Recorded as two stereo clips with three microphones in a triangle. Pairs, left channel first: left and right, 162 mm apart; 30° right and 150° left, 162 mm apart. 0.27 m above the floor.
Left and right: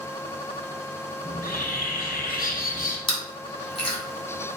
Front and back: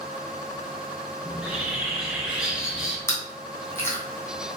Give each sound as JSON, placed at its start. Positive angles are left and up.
{"t": 1.2, "sound": "a bird", "azimuth_deg": 65, "distance_m": 1.9}
{"t": 3.1, "sound": "chewing", "azimuth_deg": 40, "distance_m": 2.5}